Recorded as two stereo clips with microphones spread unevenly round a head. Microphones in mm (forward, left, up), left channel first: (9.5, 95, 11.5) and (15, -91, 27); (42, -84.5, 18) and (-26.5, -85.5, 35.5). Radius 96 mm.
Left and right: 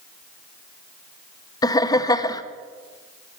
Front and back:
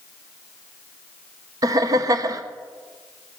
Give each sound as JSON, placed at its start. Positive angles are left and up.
{"t": 1.6, "sound": "laughter", "azimuth_deg": 150, "distance_m": 0.9}